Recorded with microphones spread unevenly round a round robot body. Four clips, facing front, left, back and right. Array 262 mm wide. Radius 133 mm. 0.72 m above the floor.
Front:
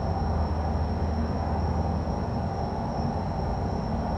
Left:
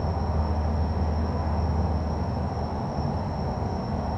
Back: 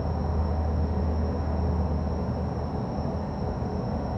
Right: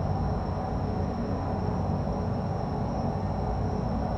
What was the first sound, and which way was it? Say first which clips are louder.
An insect: left 1 dB, front 1 dB; 140° left.